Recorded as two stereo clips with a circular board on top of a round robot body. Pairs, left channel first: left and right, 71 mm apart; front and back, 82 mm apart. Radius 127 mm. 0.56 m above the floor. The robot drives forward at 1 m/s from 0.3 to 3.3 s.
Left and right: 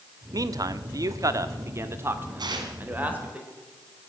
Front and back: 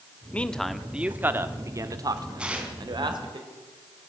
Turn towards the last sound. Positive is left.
turn(degrees=-120)